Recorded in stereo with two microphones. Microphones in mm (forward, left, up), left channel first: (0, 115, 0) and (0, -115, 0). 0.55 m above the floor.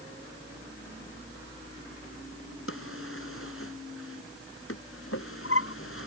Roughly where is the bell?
No bell in this recording.